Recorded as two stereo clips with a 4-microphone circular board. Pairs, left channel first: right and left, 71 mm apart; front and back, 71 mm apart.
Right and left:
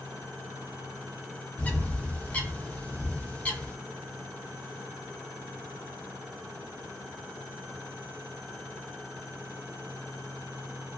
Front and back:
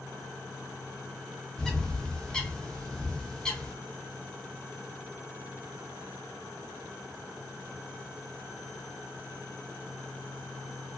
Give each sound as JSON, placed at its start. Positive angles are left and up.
{"t": 1.6, "sound": "a bird", "azimuth_deg": -65, "distance_m": 0.5}